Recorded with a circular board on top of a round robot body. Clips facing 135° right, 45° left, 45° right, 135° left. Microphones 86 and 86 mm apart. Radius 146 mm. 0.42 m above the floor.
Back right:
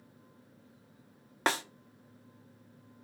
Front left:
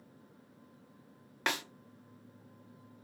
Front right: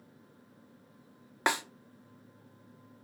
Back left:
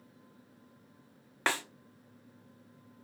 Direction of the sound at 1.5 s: 105° right.